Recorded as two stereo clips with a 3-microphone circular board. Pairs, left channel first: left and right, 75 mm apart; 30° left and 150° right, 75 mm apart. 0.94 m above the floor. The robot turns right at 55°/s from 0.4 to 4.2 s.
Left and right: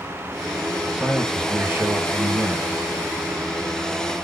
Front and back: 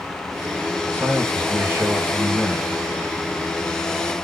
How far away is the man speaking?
About 0.8 m.